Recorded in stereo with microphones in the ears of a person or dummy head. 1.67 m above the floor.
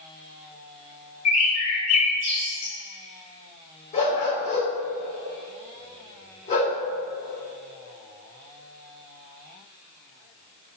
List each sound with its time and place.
1.2 s a bird: 35° left (ahead or behind), 1.4 m
3.9 s a dog barking: 30° left (ahead or behind), 2.5 m